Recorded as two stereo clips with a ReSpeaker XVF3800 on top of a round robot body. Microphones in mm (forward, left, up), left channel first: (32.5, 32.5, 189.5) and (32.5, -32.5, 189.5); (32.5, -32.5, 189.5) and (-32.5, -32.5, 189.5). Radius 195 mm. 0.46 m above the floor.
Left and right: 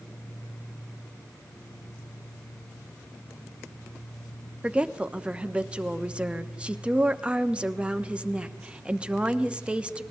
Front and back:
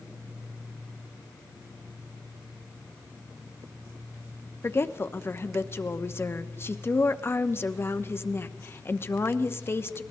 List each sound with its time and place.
4.6 s a woman speaking: 25° right, 1.1 m